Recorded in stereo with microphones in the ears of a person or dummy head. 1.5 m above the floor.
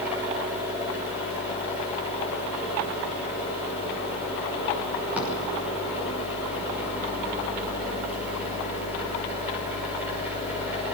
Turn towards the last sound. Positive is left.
turn(degrees=-10)  # may be behind; listen again after turning